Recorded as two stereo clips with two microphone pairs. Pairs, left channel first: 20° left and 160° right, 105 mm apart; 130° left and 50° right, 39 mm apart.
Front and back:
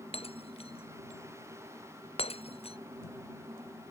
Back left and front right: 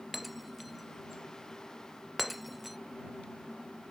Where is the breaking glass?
40° left.